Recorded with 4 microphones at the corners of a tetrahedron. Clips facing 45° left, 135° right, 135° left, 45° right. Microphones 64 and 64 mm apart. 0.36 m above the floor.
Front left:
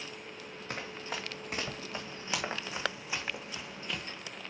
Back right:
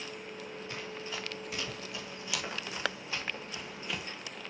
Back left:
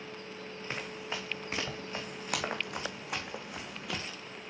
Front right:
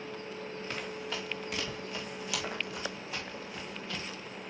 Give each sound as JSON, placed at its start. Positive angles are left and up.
{"t": 0.7, "sound": "running footsteps", "azimuth_deg": 70, "distance_m": 2.0}